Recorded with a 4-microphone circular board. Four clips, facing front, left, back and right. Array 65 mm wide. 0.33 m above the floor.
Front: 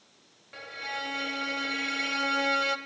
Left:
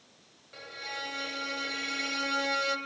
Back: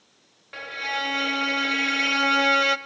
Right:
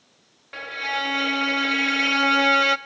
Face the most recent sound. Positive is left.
turn(degrees=-125)